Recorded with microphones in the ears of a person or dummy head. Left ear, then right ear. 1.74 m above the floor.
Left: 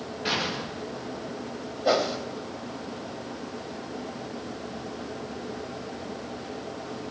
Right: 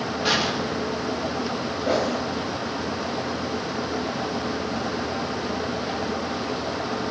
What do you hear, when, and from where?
0.2 s an explosion: 15° right (ahead or behind), 4.5 m
1.9 s a whoosh: 45° left (ahead or behind), 3.5 m